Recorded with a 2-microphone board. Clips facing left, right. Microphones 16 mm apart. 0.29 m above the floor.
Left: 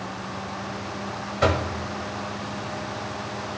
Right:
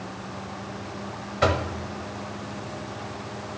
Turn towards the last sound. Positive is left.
turn(degrees=0)  # may be behind; listen again after turning